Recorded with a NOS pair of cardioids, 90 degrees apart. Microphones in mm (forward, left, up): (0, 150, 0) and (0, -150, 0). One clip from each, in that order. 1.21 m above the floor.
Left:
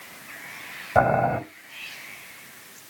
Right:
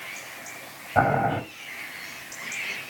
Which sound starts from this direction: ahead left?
Boiling, at 0.9 s.